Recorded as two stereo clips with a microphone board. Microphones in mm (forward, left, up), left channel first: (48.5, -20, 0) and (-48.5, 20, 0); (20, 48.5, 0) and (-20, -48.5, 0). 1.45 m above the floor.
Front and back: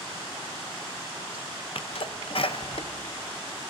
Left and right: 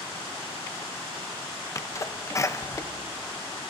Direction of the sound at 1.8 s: 5° left.